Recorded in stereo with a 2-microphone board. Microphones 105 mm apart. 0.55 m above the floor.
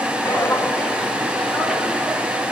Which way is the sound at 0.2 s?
25° left (ahead or behind).